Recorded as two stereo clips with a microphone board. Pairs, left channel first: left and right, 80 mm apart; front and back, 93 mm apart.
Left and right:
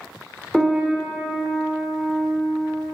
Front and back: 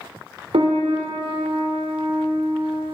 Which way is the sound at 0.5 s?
Straight behind.